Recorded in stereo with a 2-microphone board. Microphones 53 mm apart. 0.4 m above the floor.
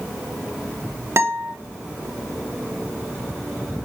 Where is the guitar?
55° right (ahead or behind), 0.5 m.